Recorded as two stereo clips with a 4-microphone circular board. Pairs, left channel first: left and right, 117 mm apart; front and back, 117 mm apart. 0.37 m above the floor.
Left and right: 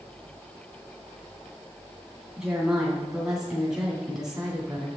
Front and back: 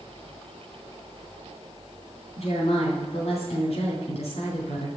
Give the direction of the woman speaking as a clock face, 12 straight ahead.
12 o'clock.